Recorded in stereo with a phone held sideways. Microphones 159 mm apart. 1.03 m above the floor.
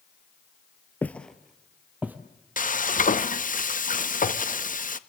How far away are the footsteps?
About 1.1 m.